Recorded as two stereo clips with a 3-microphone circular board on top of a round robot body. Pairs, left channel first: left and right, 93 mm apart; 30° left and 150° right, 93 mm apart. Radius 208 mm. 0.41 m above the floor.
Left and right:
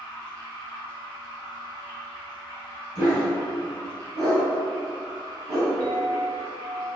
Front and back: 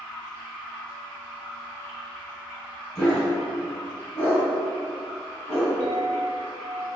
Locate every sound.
0.0 s running water: 50° right, 1.4 m
3.0 s a dog barking: 30° right, 1.5 m
5.8 s a clink: 120° right, 0.9 m